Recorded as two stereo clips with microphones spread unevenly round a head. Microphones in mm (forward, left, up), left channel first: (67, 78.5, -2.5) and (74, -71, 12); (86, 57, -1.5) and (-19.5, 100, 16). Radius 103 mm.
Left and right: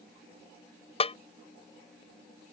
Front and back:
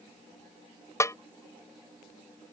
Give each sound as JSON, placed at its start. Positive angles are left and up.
{"t": 1.0, "sound": "a snare drum", "azimuth_deg": 45}